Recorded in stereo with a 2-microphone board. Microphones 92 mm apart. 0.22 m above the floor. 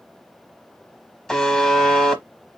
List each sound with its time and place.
1.3 s a buzzer: 5° left (ahead or behind), 0.9 m